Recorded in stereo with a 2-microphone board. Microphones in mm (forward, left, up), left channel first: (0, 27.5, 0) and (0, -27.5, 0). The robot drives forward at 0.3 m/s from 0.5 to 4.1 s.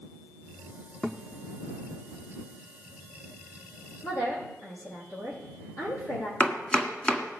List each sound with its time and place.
1.0 s a thud: 10° left (ahead or behind), 0.9 m
4.0 s a woman speaking: 80° left, 7.5 m
6.4 s chopping: 15° left (ahead or behind), 1.4 m